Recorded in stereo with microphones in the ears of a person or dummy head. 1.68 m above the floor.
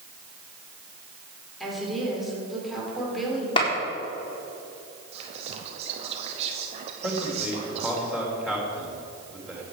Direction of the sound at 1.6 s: 5° right (ahead or behind).